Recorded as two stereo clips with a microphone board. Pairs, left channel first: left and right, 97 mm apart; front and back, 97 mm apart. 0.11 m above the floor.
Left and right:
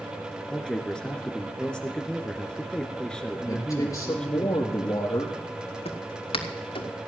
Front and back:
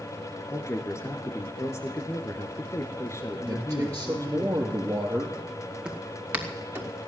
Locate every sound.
0.5 s a man speaking: 15° left, 1.7 m
3.5 s a man speaking: 125° left, 2.5 m
5.8 s footsteps: 100° left, 2.5 m; by 6.9 s 110° left, 3.5 m